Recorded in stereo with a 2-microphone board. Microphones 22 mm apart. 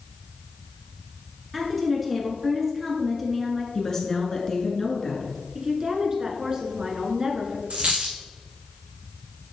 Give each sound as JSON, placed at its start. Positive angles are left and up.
{"t": 1.5, "sound": "a woman speaking", "side_deg": -5, "distance_m": 1.4}
{"t": 3.8, "sound": "a woman speaking", "side_deg": 25, "distance_m": 1.6}
{"t": 5.5, "sound": "a woman speaking", "side_deg": -30, "distance_m": 1.4}
{"t": 7.7, "sound": "a dropped coin", "side_deg": -75, "distance_m": 1.4}